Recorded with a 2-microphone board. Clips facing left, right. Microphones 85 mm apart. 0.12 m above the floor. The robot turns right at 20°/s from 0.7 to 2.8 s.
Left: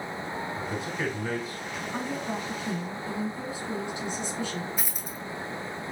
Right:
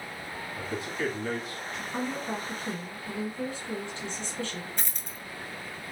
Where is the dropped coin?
10° left (ahead or behind), 0.6 m.